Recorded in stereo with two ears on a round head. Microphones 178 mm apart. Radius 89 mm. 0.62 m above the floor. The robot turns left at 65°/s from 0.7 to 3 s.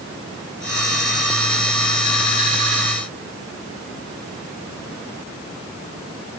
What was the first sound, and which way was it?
Only background noise.